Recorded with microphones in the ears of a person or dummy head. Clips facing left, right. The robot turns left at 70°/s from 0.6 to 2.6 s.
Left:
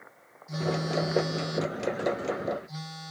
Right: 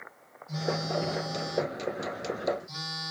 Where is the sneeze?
I don't hear a sneeze.